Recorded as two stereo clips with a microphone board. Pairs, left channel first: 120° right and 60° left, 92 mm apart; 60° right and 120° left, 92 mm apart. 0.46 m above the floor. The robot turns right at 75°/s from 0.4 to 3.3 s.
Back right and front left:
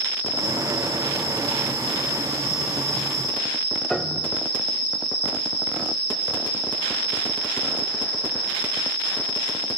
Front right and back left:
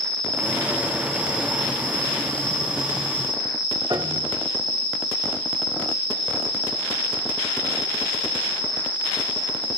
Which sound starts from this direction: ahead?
An insect, at 0.0 s.